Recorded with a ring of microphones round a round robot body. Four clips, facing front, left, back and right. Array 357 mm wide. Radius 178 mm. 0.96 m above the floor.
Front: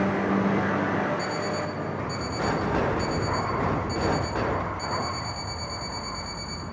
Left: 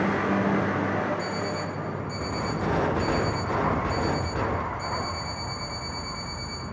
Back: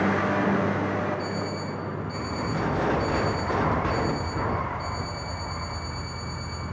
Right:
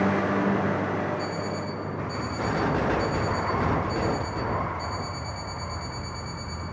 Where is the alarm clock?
25° left, 2.5 m.